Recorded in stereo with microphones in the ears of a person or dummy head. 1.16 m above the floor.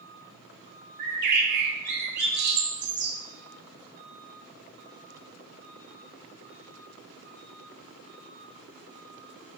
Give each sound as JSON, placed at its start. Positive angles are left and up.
{"t": 1.0, "sound": "a bird", "side_deg": -60, "distance_m": 1.3}